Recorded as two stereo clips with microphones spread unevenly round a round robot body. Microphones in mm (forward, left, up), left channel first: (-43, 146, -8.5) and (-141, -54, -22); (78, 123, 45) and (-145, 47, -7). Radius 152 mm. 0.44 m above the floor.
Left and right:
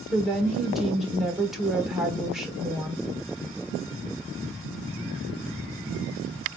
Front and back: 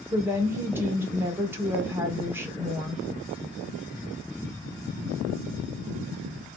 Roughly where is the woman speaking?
Behind.